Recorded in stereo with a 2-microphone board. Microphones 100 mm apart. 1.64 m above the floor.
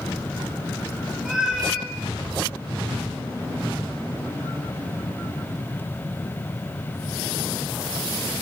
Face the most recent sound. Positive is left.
turn(degrees=-5)  # may be behind; listen again after turning